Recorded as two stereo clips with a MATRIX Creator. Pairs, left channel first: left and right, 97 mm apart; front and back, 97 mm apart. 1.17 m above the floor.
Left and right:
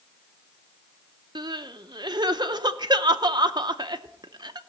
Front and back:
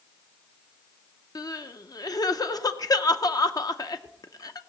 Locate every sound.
1.4 s crying: 50° right, 0.6 m